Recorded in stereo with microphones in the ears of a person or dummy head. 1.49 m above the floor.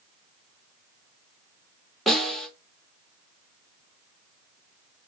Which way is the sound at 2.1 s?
5° left (ahead or behind).